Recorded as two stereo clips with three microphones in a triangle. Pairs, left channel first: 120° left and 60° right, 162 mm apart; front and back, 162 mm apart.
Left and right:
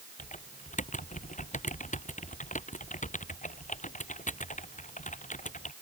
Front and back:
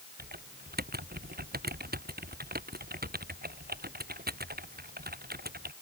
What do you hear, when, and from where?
0.2 s typing on a keyboard: 160° left